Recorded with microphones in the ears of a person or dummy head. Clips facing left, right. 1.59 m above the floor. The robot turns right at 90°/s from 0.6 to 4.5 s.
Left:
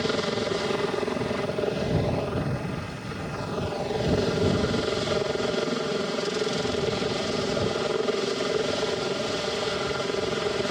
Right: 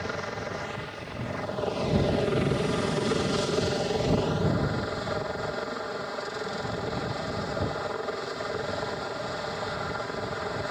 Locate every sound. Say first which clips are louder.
0.0 s a helicopter: left 8 dB; 55° left; by 10.7 s 50° left